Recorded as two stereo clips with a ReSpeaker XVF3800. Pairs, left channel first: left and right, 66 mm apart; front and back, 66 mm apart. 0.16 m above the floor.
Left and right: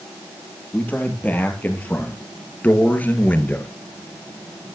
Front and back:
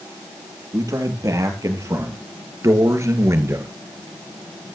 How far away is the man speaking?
About 4 m.